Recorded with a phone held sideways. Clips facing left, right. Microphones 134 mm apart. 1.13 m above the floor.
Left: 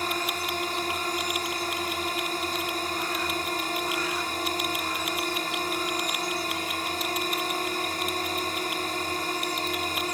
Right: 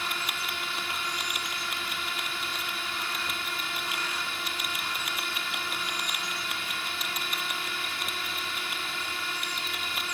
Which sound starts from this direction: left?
A drone, at 0.0 s.